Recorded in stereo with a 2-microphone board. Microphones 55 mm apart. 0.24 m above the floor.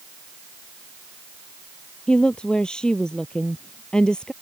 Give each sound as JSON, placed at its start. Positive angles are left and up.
{"t": 2.1, "sound": "a woman speaking", "side_deg": 15}